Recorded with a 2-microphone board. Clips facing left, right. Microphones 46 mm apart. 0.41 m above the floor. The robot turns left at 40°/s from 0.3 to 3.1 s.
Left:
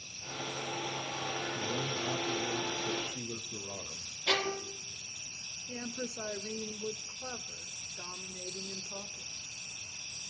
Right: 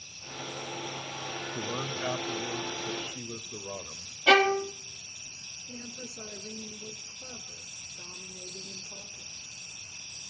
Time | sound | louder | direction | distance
1.5 | a man speaking | right 1 dB | 80° right | 1.4 m
4.3 | a violin | right 11 dB | 80° right | 0.7 m
5.7 | a woman speaking | left 4 dB | 40° left (ahead or behind) | 1.0 m